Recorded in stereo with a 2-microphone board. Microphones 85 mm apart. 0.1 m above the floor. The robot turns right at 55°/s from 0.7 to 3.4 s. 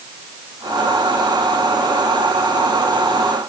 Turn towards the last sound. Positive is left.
No sound to turn to.